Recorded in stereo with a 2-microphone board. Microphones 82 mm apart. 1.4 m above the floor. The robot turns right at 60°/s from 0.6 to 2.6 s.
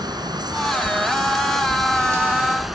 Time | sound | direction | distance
0.0 | running water | 120° right | ?